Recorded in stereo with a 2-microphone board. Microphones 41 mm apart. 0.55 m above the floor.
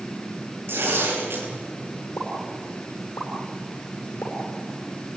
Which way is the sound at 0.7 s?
65° right (ahead or behind).